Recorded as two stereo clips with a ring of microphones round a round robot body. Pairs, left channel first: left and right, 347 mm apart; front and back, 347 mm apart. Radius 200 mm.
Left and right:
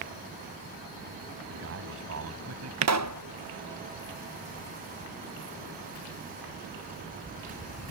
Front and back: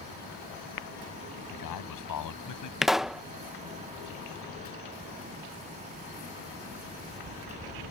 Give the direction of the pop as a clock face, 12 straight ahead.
3 o'clock.